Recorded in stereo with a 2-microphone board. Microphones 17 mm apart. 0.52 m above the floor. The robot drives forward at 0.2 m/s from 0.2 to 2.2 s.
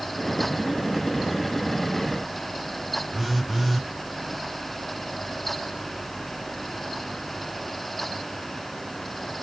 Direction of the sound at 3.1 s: 10° right (ahead or behind).